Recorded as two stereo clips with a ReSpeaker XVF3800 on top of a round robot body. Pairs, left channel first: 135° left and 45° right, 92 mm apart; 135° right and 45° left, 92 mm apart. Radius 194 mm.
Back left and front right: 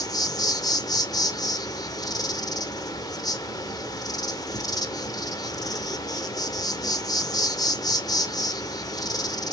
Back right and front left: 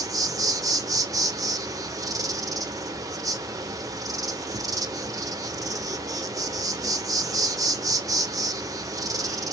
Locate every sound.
0.0 s an insect: 95° left, 0.8 m